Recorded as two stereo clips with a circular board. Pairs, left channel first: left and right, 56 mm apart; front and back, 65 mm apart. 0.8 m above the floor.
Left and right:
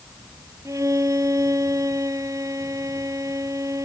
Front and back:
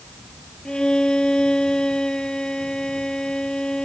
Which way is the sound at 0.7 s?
80° right.